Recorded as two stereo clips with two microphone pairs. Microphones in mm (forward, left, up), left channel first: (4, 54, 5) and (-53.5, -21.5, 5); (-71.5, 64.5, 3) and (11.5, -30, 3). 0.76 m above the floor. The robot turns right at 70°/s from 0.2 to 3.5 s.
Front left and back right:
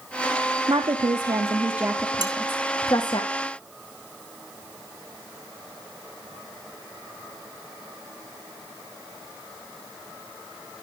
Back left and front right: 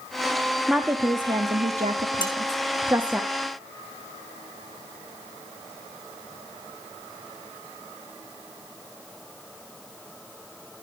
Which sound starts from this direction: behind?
Dishes clattering, at 2.2 s.